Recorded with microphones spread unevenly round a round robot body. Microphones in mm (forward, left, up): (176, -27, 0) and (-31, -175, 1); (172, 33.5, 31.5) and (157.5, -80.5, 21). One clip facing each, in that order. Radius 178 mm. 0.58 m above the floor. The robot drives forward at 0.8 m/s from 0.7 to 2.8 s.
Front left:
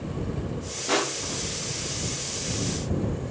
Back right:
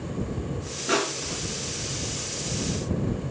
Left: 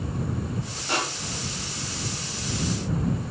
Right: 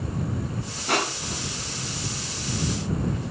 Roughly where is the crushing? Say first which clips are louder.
Back right 1 dB, right 4 dB; ahead right.